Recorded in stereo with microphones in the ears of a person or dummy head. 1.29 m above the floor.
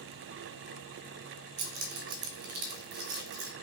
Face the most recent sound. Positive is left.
turn(degrees=-50)  # may be behind; listen again after turning